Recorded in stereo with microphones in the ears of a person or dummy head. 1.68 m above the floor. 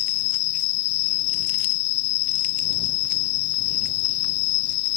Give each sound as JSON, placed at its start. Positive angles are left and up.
{"t": 0.0, "sound": "an insect", "side_deg": 65}